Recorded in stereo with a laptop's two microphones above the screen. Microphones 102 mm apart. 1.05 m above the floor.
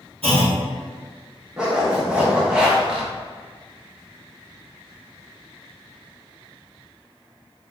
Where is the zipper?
5° right (ahead or behind), 0.7 m.